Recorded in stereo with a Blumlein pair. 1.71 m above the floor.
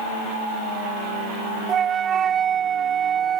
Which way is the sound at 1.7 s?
25° right.